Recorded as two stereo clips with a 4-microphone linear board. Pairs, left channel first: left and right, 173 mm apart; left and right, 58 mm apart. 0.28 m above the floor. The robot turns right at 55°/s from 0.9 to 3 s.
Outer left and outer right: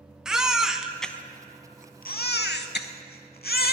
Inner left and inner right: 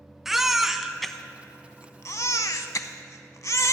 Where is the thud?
I don't hear a thud.